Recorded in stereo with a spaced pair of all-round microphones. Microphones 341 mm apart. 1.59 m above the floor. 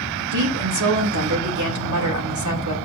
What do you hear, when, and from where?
0.3 s a woman speaking: 65° right (ahead or behind), 2.5 m